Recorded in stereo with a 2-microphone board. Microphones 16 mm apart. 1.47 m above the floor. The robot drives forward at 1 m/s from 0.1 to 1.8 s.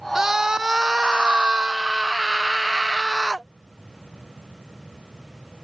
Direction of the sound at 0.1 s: 25° right (ahead or behind).